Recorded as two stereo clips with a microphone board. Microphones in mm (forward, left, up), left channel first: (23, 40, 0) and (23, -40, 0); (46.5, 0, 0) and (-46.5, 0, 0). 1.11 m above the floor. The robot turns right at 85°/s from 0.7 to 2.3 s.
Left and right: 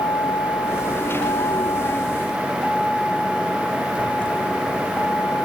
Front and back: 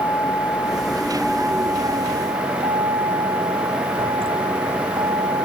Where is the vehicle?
55° left; by 5.5 s 160° left.